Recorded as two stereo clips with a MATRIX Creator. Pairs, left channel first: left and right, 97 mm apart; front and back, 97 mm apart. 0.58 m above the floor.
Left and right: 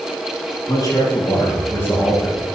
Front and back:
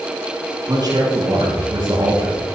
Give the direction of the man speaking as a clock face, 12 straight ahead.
7 o'clock.